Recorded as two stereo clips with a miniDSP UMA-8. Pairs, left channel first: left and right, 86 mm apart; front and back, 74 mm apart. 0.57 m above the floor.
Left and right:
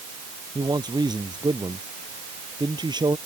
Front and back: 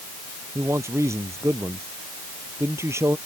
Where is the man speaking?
125° right.